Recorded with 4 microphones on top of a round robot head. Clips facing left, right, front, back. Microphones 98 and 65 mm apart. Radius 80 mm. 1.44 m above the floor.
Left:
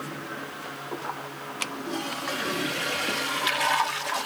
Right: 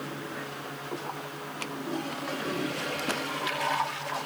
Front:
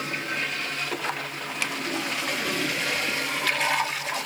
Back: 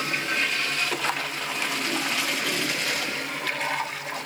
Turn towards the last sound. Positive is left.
No sound to turn to.